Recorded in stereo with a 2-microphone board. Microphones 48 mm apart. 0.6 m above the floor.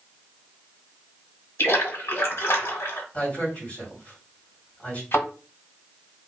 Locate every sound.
1.6 s a splash: 70° left (ahead or behind), 1.2 m
3.1 s a man speaking: 30° left (ahead or behind), 1.9 m
5.1 s a thud: 65° left (ahead or behind), 1.3 m